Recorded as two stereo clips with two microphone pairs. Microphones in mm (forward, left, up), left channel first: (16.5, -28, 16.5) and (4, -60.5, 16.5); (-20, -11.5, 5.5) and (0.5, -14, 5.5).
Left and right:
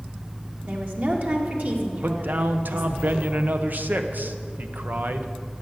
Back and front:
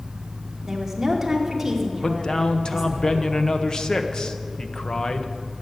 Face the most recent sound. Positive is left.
turn(degrees=-140)